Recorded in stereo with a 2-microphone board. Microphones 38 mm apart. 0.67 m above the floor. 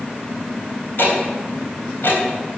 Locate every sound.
1.0 s ticking: 65° left (ahead or behind), 3.5 m